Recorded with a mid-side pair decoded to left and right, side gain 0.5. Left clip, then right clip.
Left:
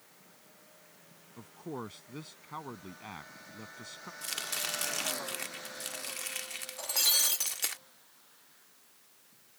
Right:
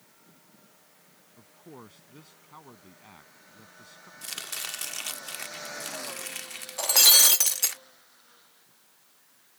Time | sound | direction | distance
1.4 | a man speaking | 45° left | ?
4.2 | chopping | 5° right | ?
6.8 | breaking glass | 60° right | ?